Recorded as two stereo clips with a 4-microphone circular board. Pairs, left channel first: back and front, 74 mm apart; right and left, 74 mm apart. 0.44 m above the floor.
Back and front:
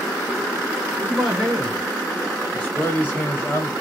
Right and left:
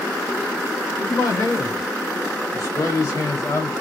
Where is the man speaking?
75° right, 1.6 m; by 3.7 s 130° right, 2 m.